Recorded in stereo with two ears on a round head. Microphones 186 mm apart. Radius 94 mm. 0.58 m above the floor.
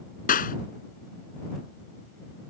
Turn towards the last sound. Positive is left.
turn(degrees=40)  # may be behind; listen again after turning